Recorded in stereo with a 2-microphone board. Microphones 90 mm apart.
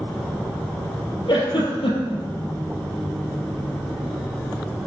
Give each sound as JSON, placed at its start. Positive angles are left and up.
{"t": 1.3, "sound": "a giggle", "side_deg": 65, "distance_m": 3.5}